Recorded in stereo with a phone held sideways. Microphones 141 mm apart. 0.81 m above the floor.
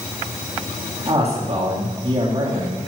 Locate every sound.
1.1 s a man speaking: 45° right (ahead or behind), 1.9 m